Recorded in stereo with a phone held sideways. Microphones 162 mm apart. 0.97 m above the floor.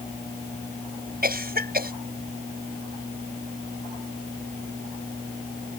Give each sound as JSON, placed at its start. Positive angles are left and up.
{"t": 1.2, "sound": "a cough", "side_deg": -70}